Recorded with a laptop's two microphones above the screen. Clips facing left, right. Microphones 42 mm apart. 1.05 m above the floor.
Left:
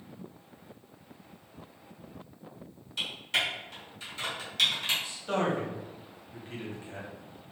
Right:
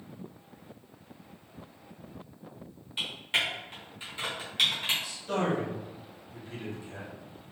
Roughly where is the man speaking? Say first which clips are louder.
Even; left.